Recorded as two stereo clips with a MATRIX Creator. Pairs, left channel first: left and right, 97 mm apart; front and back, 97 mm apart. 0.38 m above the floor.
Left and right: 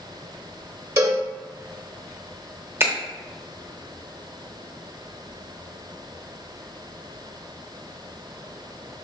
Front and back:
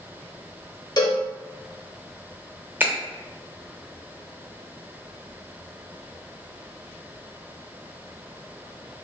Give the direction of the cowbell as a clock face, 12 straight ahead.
1 o'clock.